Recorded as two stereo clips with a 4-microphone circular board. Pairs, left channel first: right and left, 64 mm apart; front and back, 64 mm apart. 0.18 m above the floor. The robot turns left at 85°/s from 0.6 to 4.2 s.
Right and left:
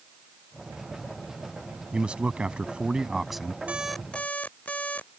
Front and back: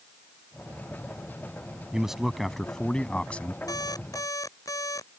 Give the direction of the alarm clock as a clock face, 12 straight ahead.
11 o'clock.